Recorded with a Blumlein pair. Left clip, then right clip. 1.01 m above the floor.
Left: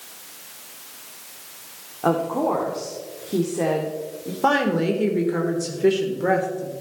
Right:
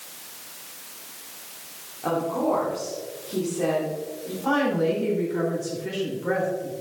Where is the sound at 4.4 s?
40° left, 3.5 m.